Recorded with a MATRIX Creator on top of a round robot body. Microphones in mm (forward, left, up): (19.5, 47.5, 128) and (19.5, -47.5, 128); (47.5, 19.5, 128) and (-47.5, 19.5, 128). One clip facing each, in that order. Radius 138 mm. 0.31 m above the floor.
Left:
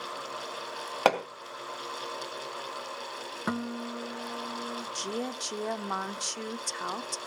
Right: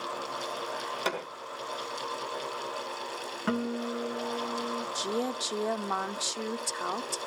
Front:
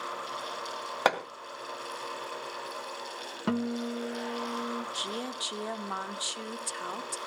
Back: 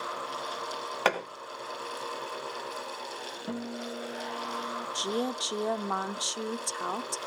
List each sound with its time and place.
1.1 s hammering: 75° left, 2.5 m
3.5 s a guitar: 10° left, 1.1 m
5.0 s a woman speaking: 165° right, 0.9 m